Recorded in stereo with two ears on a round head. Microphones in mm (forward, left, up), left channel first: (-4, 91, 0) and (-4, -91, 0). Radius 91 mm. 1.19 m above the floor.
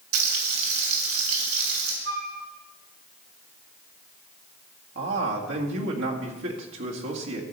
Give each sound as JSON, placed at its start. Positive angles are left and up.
{"t": 0.1, "sound": "frying", "side_deg": -75, "distance_m": 2.5}
{"t": 2.0, "sound": "a flute", "side_deg": -75, "distance_m": 1.9}
{"t": 5.0, "sound": "a man speaking", "side_deg": -65, "distance_m": 2.0}